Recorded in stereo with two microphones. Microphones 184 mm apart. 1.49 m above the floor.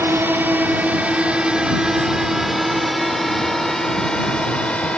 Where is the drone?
10° right (ahead or behind); by 5.0 s 5° left (ahead or behind).